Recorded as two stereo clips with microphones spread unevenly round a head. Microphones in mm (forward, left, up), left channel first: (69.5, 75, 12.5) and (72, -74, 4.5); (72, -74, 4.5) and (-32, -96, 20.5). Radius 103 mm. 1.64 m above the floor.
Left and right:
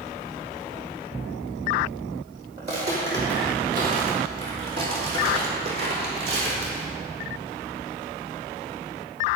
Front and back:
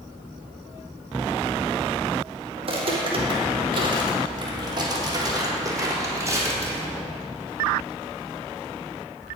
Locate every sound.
2.6 s footsteps: 155° right, 4 m; by 6.9 s 105° right, 4 m